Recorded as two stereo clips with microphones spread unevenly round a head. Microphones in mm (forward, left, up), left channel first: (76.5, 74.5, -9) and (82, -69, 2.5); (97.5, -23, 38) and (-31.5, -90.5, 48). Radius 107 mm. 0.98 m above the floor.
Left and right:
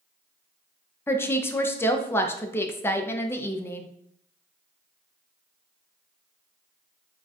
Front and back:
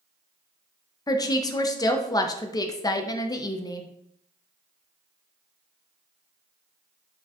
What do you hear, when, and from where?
1.1 s a woman speaking: 45° left, 0.5 m